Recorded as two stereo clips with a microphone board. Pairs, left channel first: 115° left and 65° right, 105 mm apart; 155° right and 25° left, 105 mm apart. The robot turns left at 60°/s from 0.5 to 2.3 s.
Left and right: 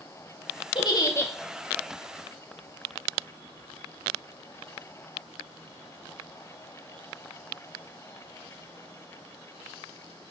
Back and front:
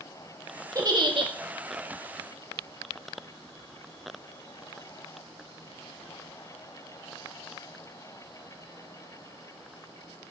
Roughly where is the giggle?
Left.